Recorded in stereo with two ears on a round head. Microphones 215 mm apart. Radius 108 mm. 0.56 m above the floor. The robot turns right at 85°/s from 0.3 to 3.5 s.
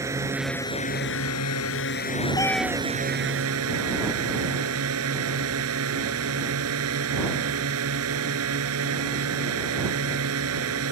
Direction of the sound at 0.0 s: 15° right.